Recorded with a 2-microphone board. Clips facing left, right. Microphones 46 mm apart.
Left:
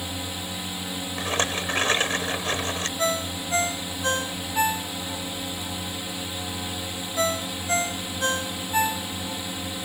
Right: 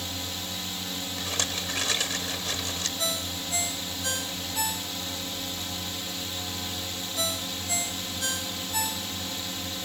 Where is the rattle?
35° left (ahead or behind).